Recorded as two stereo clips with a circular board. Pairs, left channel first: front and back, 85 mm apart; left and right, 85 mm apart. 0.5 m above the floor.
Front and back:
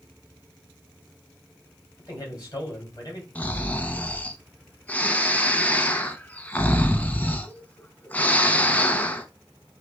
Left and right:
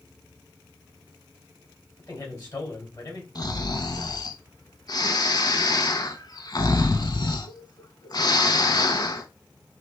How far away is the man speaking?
About 2.5 m.